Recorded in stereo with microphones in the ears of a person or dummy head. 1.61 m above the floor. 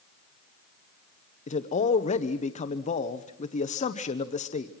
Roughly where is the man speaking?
Left.